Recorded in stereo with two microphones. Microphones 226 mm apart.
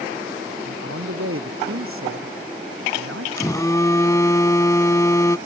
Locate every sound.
0.7 s a man speaking: 70° right (ahead or behind)
3.4 s a phone buzzing: 15° left (ahead or behind)